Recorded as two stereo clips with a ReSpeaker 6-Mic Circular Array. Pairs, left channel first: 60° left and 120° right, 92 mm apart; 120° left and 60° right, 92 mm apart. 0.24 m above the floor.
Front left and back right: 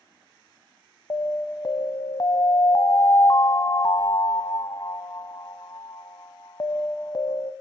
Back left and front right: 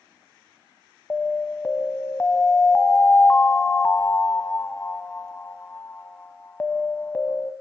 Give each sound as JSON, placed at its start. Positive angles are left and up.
{"t": 1.1, "sound": "an alarm", "azimuth_deg": 60, "distance_m": 0.9}